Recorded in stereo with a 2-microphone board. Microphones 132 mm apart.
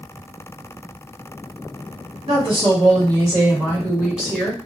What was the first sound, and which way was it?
A woman speaking, 45° right (ahead or behind).